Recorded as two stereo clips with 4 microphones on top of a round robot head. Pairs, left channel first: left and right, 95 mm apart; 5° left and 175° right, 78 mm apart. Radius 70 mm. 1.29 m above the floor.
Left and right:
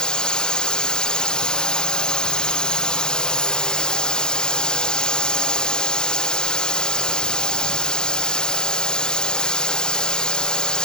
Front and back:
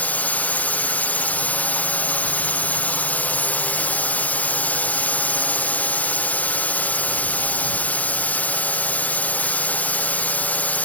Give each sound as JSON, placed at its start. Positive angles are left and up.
{"t": 0.0, "sound": "a drone", "azimuth_deg": 25}